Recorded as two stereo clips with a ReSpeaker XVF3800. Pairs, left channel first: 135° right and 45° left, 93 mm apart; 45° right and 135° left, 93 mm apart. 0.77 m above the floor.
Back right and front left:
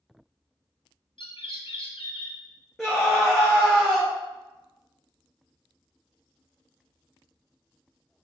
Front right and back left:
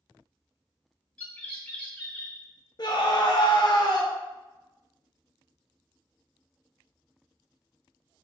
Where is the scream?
45° right, 0.6 m.